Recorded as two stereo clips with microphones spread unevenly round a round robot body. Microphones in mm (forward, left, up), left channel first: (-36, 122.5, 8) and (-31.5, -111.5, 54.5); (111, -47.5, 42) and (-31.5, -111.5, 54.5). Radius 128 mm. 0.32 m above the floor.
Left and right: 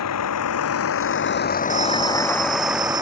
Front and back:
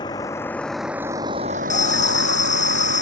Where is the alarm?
15° right.